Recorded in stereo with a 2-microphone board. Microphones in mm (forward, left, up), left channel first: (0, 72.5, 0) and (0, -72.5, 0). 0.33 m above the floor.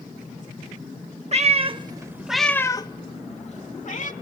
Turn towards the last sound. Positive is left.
turn(degrees=65)  # may be behind; listen again after turning